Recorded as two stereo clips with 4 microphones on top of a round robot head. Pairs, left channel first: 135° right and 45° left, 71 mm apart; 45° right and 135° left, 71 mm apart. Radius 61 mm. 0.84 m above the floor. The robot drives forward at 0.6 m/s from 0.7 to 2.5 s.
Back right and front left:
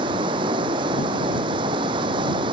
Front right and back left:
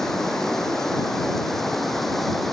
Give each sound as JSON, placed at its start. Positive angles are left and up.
{"t": 0.0, "sound": "running water", "azimuth_deg": 40}